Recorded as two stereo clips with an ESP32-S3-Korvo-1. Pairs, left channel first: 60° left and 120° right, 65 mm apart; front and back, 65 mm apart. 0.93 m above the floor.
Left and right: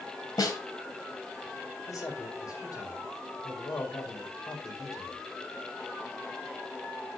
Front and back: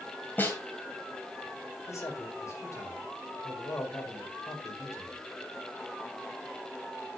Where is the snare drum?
55° left, 3 m.